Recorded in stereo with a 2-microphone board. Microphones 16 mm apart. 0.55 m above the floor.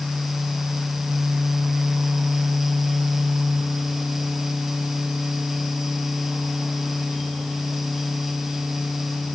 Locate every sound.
Only background noise.